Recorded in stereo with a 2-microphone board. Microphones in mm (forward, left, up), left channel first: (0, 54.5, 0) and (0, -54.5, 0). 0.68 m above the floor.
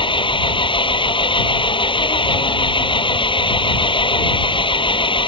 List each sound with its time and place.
0.0 s an engine running: 55° left (ahead or behind)